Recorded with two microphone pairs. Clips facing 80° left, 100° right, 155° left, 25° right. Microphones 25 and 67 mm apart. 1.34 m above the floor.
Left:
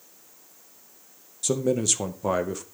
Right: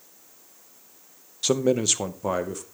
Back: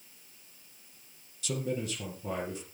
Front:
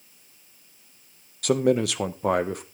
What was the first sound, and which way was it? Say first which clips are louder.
A man speaking: right 2 dB, front 13 dB; 50° right.